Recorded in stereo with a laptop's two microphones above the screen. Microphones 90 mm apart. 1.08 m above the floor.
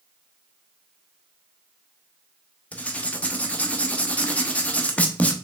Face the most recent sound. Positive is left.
turn(degrees=15)  # may be behind; listen again after turning